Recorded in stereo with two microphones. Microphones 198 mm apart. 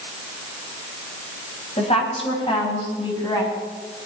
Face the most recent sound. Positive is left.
turn(degrees=20)  # may be behind; listen again after turning